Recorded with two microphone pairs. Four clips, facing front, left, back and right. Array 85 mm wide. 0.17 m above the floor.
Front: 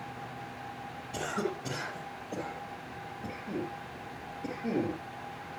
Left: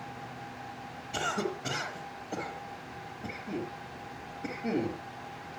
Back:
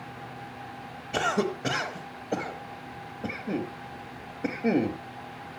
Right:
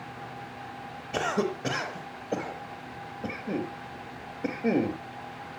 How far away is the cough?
About 4 m.